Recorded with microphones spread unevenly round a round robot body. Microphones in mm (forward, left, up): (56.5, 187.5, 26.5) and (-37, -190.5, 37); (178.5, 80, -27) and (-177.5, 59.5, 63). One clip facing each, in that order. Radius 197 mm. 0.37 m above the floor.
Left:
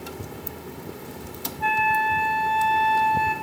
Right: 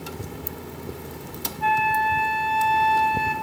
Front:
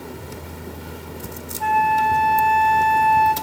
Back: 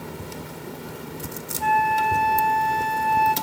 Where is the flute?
20° right, 0.8 m.